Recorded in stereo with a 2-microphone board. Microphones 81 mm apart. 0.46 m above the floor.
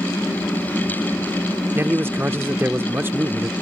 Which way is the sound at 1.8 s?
30° right (ahead or behind).